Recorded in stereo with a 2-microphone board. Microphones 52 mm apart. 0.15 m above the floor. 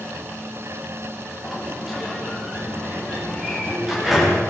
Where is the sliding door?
5° right (ahead or behind), 7.5 m.